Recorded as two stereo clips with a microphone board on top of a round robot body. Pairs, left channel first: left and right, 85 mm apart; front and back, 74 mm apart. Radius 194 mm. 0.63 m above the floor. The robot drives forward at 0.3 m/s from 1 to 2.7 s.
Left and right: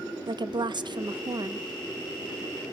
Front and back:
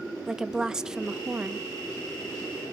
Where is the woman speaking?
100° right, 0.7 m; by 1.6 s 120° right, 0.8 m.